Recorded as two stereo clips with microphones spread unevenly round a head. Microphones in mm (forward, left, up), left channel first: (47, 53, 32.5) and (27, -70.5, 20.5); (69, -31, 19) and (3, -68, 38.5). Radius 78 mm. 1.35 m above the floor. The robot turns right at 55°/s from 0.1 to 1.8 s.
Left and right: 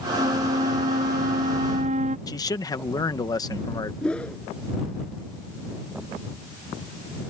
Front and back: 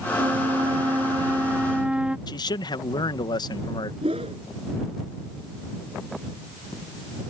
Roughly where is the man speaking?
Ahead.